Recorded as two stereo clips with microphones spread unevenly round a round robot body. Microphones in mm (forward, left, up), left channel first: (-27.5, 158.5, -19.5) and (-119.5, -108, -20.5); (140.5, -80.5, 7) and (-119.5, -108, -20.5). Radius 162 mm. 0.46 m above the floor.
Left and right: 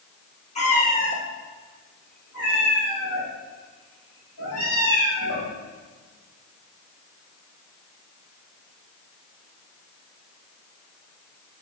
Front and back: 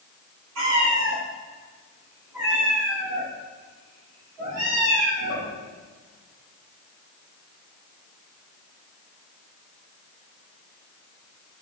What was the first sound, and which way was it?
A cat meowing, 135° left.